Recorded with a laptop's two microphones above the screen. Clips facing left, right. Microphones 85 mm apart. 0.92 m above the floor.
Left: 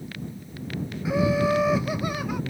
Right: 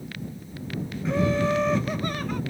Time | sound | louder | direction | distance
1.1 | laughter | left 1 dB | 10° left (ahead or behind) | ?